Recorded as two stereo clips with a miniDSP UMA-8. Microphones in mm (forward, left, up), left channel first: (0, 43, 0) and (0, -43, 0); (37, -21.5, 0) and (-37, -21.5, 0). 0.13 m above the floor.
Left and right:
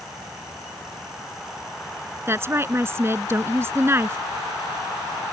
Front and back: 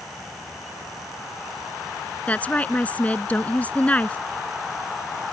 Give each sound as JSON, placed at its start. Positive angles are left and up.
{"t": 2.3, "sound": "a woman speaking", "azimuth_deg": -55}